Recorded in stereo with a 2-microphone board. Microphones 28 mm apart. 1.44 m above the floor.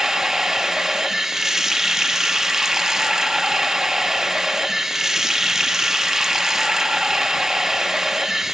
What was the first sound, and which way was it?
Running water, 15° right (ahead or behind).